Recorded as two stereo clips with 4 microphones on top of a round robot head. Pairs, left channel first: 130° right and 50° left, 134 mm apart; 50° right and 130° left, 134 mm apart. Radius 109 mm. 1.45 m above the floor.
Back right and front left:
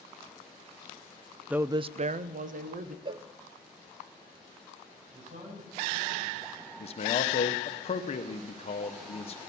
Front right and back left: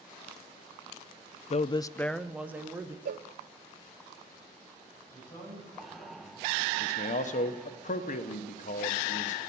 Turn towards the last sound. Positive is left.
turn(degrees=-85)